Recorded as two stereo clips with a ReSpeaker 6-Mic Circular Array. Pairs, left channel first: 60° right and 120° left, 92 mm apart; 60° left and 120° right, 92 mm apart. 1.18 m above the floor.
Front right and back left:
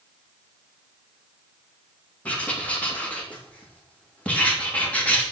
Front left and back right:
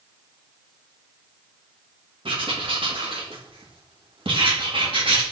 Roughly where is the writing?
Behind right.